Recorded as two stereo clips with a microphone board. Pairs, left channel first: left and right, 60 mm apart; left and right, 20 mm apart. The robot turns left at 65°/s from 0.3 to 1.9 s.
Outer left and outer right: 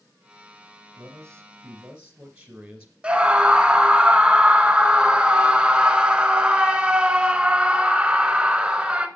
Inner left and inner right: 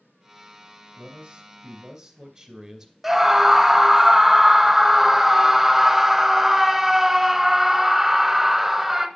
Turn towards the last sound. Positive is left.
turn(degrees=-15)  # may be behind; listen again after turning